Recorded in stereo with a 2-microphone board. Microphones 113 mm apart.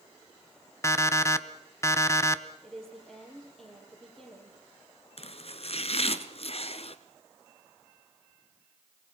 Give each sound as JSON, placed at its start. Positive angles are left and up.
{"t": 0.8, "sound": "an alarm clock", "side_deg": 25, "distance_m": 0.9}
{"t": 2.6, "sound": "a woman speaking", "side_deg": 5, "distance_m": 6.5}
{"t": 5.2, "sound": "chopping", "side_deg": 55, "distance_m": 1.0}